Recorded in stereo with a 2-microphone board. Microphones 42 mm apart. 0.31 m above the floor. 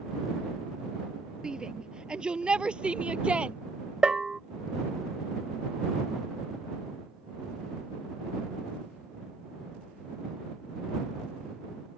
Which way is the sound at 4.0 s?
20° right (ahead or behind).